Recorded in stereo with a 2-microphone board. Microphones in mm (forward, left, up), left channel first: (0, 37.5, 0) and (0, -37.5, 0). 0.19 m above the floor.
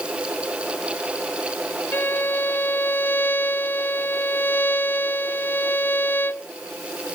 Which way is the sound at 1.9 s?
25° left (ahead or behind).